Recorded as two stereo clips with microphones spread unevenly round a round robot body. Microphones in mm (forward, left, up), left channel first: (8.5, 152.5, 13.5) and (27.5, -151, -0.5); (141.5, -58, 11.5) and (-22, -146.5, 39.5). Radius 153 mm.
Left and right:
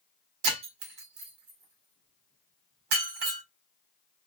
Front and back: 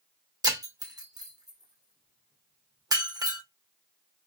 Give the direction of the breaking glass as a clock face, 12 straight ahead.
3 o'clock.